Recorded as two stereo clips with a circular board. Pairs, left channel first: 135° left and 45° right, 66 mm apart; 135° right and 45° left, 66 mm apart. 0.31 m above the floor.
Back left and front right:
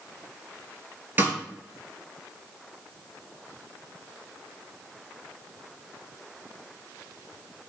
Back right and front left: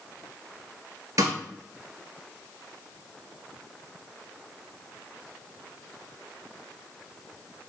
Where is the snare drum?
15° left, 1.0 m.